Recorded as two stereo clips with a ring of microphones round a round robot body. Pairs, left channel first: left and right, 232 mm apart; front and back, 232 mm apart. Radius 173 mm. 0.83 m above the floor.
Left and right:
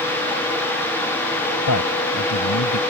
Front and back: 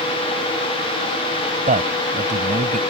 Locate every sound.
1.7 s a man speaking: 120° left